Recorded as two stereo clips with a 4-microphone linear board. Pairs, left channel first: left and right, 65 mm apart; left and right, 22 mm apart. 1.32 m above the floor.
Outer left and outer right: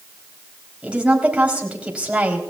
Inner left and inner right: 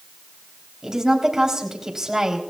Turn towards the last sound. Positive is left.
turn(degrees=-20)  # may be behind; listen again after turning